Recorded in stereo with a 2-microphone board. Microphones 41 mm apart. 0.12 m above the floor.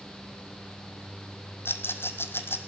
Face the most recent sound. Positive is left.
turn(degrees=75)  # may be behind; listen again after turning